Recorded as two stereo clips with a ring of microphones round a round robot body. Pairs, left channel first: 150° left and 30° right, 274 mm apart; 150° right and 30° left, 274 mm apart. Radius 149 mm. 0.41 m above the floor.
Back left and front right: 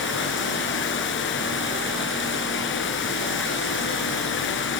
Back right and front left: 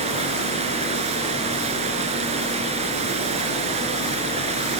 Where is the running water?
100° left, 3 m.